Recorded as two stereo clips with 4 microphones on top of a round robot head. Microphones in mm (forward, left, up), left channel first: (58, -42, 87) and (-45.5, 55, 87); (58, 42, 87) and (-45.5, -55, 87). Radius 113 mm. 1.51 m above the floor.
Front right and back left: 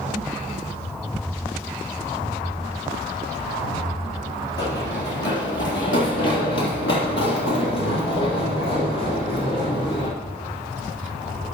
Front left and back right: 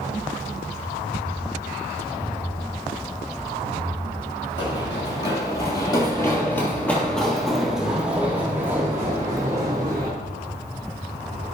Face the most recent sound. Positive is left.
turn(degrees=-80)